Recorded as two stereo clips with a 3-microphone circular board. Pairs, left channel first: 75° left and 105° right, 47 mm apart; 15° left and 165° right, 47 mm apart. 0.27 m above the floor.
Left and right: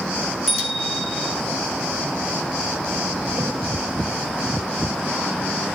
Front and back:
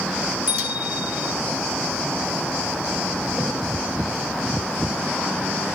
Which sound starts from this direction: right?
A thud, at 3.4 s.